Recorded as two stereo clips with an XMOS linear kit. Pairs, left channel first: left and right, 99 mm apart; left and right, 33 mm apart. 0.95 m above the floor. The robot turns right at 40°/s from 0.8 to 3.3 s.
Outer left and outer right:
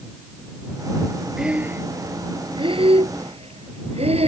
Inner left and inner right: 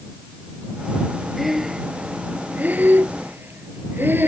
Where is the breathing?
5° right (ahead or behind); by 4.3 s 85° right.